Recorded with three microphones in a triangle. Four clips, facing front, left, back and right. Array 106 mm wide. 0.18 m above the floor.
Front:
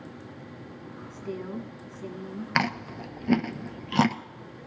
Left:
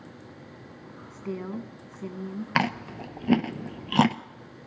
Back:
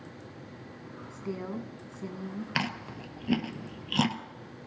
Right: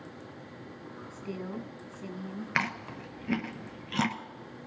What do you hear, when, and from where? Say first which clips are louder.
1.1 s a woman speaking: left 5 dB, front 1 dB; 115° left, 1.3 m
2.5 s chewing: left 7 dB, front 8 dB; 70° left, 0.6 m